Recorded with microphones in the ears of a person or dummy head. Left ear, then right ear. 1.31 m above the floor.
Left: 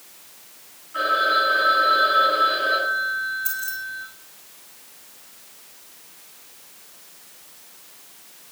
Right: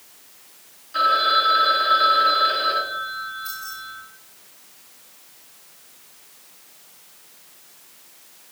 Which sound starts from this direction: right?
A phone ringing, at 0.9 s.